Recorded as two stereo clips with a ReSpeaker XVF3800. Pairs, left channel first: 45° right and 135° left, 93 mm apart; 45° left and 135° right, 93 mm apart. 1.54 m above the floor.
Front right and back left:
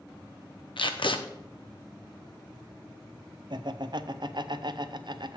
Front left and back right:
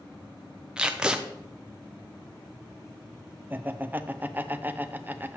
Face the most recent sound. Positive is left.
turn(degrees=160)